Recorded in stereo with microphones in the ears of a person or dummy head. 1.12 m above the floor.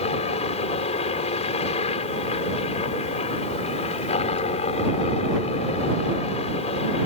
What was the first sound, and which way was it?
A helicopter, 30° left (ahead or behind).